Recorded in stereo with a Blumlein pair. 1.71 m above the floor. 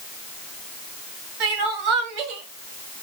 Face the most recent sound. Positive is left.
turn(degrees=-40)